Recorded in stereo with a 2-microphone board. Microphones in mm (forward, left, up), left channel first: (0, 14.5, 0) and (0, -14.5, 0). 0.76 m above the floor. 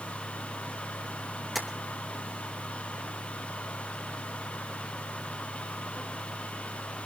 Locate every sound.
1.6 s tapping: 5° right (ahead or behind), 3 m